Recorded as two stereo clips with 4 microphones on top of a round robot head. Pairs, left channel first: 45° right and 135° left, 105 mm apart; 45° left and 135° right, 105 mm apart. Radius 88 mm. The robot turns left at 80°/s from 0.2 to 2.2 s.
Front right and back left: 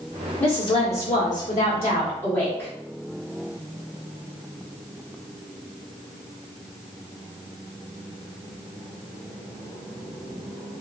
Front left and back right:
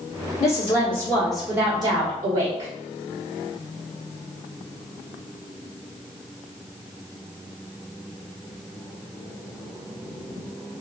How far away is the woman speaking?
About 1.4 m.